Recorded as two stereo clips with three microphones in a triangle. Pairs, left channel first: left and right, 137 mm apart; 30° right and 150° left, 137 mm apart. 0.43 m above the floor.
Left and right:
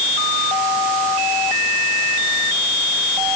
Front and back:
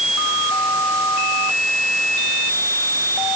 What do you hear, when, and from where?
Only background noise.